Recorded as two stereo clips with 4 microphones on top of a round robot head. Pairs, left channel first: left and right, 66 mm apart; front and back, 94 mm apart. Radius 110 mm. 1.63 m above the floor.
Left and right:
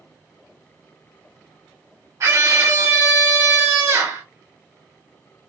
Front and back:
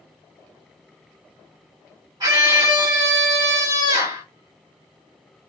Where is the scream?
130° right, 1.8 m.